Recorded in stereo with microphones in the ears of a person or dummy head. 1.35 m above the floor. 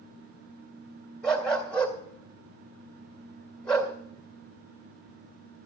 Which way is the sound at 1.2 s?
5° left (ahead or behind).